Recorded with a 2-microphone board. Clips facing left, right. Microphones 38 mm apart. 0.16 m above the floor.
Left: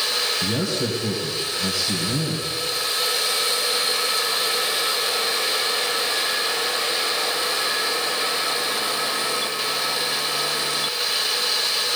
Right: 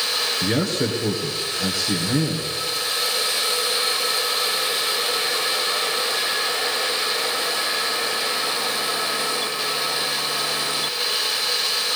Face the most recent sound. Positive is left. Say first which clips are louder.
# right 2 dB
turn(degrees=-40)  # may be behind; listen again after turning